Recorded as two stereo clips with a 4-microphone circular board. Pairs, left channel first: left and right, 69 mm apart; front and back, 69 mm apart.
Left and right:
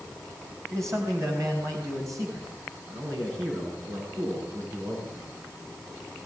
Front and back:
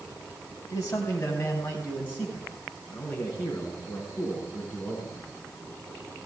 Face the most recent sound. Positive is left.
turn(degrees=-70)